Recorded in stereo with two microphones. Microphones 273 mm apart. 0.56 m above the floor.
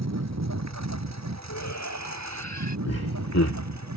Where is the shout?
85° left.